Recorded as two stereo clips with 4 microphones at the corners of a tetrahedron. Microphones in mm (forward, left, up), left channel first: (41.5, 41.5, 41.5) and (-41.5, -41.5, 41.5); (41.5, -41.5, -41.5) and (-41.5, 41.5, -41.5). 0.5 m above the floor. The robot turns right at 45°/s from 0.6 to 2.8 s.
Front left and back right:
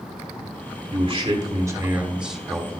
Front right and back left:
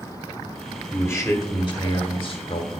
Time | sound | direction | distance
0.9 | a man speaking | 115° right | 1.4 m